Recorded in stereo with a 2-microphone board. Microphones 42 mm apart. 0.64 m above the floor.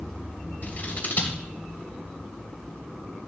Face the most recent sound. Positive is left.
turn(degrees=45)  # may be behind; listen again after turning